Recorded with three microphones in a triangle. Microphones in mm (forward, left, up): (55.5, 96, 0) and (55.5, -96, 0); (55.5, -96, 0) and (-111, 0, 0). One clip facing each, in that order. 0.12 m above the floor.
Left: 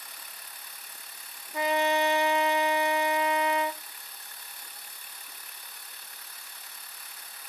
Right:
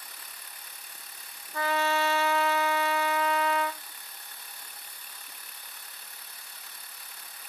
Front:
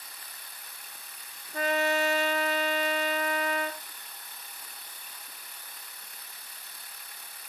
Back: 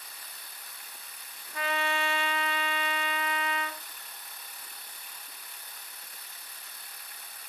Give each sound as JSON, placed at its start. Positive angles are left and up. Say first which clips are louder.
{"t": 1.5, "sound": "a trumpet", "louder": "left 2 dB, front 5 dB", "azimuth_deg": 15, "distance_m": 1.1}